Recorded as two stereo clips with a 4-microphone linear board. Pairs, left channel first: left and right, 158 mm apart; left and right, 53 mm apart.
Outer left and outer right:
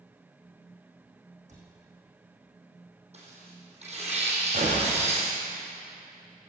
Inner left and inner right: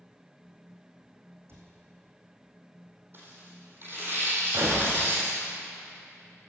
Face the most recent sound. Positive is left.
turn(degrees=-55)  # may be behind; listen again after turning